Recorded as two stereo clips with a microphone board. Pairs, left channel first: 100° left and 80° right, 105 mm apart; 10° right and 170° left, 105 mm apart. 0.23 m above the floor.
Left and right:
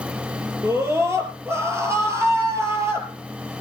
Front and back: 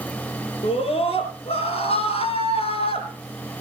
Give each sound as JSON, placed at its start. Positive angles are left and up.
{"t": 0.6, "sound": "a scream", "azimuth_deg": -15, "distance_m": 4.5}